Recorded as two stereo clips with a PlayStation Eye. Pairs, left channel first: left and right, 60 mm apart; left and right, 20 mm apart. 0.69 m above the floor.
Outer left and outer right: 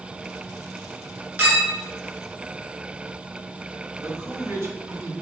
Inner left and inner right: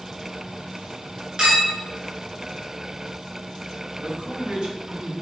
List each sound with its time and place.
1.4 s a clink: 30° right (ahead or behind), 2.5 m
4.0 s a man speaking: 45° right (ahead or behind), 1.3 m